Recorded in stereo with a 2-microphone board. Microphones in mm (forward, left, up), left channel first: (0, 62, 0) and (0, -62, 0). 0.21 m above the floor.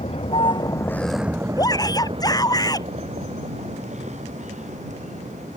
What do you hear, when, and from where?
0.0 s a vehicle: 60° left (ahead or behind); by 5.6 s 75° right (ahead or behind)
1.6 s a shout: 30° left (ahead or behind)